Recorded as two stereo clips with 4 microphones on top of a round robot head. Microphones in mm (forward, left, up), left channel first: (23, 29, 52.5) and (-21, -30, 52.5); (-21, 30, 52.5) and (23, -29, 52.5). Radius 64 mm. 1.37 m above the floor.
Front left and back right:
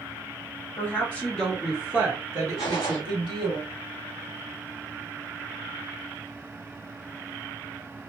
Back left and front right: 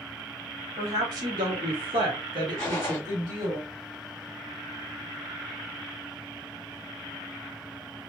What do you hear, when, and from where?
0.8 s a woman speaking: 10° right, 1.1 m; by 3.6 s 105° right, 1.3 m
2.6 s a gunshot: 60° left, 1.3 m